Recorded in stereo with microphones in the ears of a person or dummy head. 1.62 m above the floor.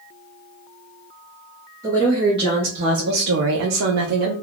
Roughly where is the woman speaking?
Centre.